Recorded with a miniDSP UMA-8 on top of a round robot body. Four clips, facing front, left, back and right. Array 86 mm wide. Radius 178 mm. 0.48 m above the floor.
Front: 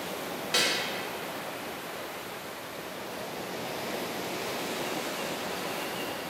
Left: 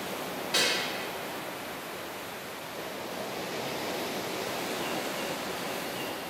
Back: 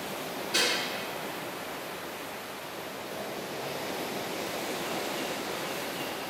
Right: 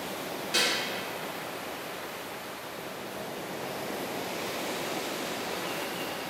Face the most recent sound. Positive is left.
turn(degrees=5)